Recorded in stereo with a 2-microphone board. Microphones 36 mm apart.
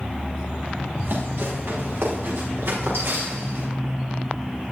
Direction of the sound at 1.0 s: 75° right (ahead or behind).